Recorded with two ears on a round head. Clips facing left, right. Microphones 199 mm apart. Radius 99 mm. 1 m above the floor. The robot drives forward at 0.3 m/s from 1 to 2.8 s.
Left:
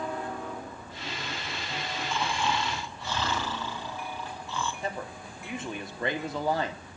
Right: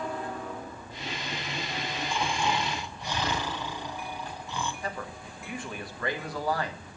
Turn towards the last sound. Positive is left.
turn(degrees=20)  # may be behind; listen again after turning